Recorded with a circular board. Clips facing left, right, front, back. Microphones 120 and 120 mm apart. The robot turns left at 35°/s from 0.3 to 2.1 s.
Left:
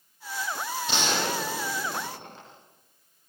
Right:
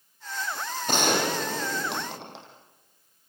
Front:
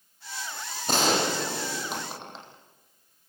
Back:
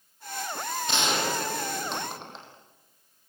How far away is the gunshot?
About 5.5 m.